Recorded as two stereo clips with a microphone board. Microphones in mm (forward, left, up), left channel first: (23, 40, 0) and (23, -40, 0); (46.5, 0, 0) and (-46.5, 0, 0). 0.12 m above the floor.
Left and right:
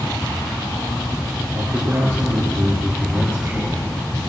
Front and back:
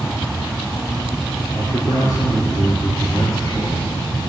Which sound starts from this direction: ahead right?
A man speaking, at 1.5 s.